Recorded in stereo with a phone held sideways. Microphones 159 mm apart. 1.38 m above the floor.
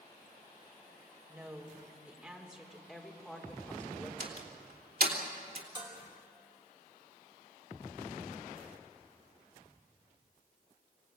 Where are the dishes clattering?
30° right (ahead or behind), 4.5 m.